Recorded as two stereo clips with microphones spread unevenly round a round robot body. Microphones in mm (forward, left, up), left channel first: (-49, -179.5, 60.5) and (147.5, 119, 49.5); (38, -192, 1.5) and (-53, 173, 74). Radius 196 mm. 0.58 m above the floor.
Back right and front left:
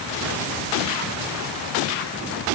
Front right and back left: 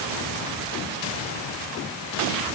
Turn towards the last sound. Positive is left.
No sound to turn to.